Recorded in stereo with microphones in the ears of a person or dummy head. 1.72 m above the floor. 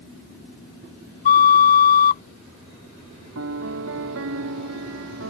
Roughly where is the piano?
Right.